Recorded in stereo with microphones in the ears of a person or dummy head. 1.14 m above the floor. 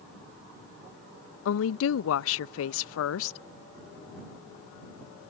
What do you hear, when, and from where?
1.4 s a woman speaking: 85° left